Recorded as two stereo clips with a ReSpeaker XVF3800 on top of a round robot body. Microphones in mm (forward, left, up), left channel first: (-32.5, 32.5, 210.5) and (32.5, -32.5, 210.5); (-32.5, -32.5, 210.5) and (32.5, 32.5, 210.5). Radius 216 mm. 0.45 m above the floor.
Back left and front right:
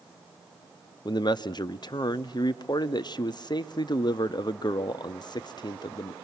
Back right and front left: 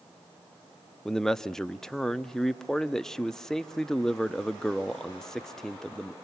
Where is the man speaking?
140° left, 1.3 m.